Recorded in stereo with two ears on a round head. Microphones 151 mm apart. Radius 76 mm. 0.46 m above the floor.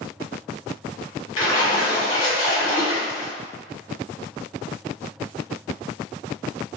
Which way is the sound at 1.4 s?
30° left (ahead or behind).